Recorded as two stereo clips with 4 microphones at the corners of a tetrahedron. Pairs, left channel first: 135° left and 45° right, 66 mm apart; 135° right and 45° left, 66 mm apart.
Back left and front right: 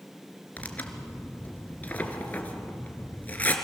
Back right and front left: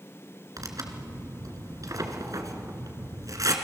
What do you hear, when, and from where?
0.6 s tearing paper: 70° left, 2 m